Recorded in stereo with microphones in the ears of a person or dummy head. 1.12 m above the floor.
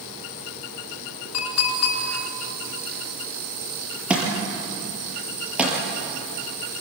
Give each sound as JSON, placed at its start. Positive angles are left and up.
{"t": 1.3, "sound": "a clink", "side_deg": 85, "distance_m": 8.5}
{"t": 4.1, "sound": "a thud", "side_deg": -5, "distance_m": 6.0}